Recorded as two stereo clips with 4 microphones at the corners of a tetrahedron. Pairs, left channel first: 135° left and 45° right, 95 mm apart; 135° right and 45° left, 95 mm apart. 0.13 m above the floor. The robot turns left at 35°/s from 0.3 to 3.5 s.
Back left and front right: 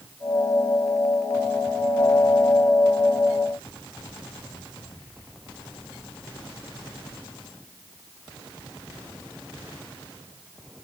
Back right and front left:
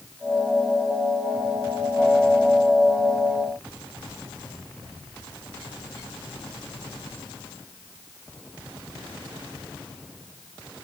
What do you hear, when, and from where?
Only background noise.